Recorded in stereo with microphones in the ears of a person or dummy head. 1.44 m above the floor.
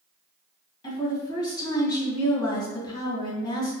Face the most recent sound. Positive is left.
turn(degrees=30)  # may be behind; listen again after turning